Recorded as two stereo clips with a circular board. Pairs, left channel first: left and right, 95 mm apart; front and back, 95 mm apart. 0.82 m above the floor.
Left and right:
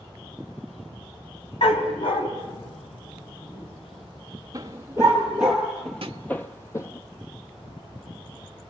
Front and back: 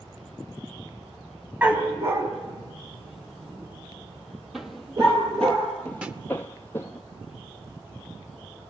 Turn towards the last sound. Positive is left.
turn(degrees=-105)